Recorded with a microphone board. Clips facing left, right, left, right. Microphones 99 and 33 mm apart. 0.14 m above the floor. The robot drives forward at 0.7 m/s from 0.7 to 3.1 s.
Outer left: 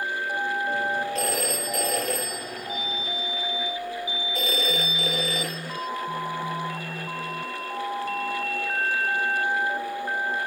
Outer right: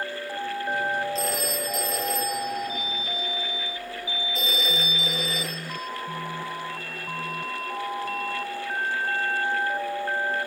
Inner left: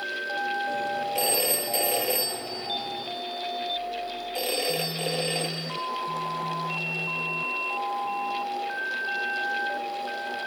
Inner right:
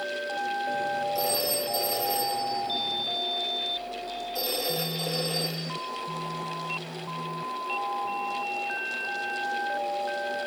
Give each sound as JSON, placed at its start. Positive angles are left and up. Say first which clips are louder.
{"t": 1.1, "sound": "a phone ringing", "louder": "outer left 1 dB, inner left 1 dB", "side_deg": 65, "distance_m": 2.5}